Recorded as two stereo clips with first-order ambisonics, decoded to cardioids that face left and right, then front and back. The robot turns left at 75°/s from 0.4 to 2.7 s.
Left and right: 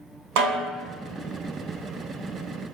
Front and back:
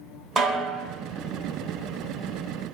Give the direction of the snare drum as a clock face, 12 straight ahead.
3 o'clock.